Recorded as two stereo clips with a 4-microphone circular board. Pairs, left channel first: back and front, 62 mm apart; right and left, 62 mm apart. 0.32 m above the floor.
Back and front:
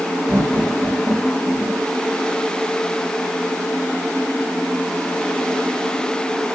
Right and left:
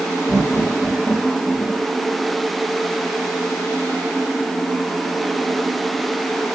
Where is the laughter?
35° right, 5 m.